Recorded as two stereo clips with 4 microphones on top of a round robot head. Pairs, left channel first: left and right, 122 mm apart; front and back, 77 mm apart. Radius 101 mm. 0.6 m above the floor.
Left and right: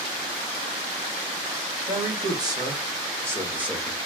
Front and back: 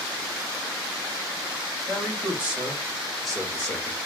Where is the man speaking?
130° right, 1.5 m; by 4.0 s 10° right, 1.2 m.